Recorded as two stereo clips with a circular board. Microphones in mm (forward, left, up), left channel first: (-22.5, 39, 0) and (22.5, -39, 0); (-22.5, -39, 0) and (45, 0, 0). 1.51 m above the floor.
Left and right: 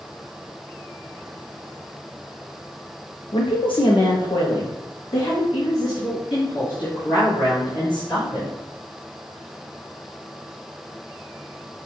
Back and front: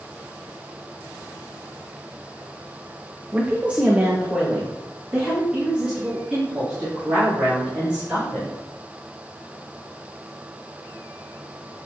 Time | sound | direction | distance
3.3 | a woman speaking | 100° left | 0.6 m